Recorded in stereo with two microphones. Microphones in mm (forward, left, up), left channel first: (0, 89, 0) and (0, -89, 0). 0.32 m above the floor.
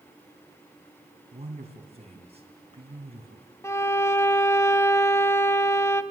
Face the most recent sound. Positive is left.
turn(degrees=15)  # may be behind; listen again after turning